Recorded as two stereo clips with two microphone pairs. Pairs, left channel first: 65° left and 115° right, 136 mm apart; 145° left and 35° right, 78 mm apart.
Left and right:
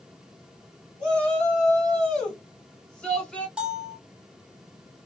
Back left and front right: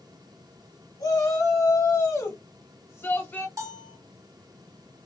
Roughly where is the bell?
Ahead right.